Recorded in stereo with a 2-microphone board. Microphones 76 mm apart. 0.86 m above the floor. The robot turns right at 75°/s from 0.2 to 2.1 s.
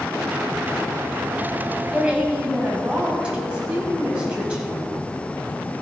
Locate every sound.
1.9 s a woman speaking: 5° left (ahead or behind), 5 m; by 4.9 s 10° right (ahead or behind), 5 m